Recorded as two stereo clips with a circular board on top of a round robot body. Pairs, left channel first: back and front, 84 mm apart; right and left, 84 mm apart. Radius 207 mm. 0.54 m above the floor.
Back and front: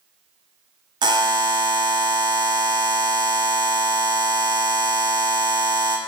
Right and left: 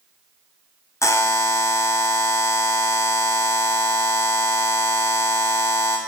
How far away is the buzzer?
About 0.7 m.